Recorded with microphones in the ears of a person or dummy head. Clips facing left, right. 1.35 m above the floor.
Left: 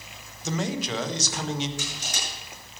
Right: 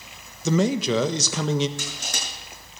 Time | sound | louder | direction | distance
0.5 | a man speaking | right 8 dB | 65° right (ahead or behind) | 1.5 m
1.8 | crushing | right 1 dB | 50° right (ahead or behind) | 8.5 m